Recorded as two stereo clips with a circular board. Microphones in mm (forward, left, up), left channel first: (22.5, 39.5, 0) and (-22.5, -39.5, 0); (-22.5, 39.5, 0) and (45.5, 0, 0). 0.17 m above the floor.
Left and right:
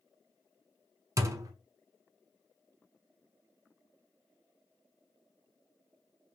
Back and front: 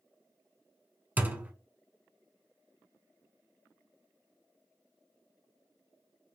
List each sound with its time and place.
1.2 s a thud: 90° right, 0.5 m